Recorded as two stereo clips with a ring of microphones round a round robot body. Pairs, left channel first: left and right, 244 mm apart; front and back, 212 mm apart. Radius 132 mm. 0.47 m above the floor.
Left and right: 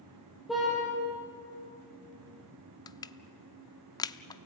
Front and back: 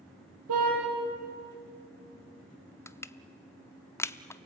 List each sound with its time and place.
0.5 s a car horn: straight behind, 6.5 m
2.9 s crushing: 55° left, 0.7 m